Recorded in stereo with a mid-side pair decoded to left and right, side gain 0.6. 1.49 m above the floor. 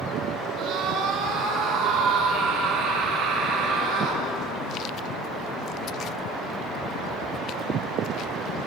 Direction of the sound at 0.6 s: 65° right.